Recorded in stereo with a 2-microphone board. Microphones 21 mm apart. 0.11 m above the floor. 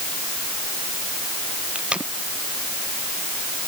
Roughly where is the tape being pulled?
Right.